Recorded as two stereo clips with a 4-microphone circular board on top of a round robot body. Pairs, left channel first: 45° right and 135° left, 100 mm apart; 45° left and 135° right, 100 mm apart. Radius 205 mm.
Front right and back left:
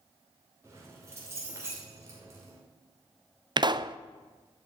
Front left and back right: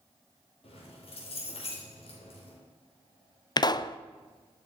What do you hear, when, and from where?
0.6 s keys jangling: 70° left, 2.5 m
3.6 s a pop: 90° left, 0.6 m